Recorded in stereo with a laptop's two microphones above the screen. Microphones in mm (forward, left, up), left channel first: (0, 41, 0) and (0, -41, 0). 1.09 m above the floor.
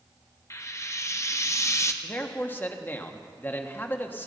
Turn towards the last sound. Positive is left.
turn(degrees=25)  # may be behind; listen again after turning